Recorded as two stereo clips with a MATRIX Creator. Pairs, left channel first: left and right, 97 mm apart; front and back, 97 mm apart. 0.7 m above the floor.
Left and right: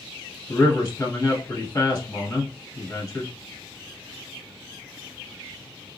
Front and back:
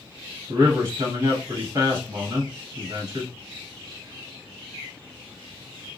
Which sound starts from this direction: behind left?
A man speaking, at 0.5 s.